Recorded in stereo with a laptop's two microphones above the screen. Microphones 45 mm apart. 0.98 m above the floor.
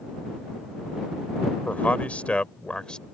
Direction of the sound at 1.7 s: 40° left (ahead or behind).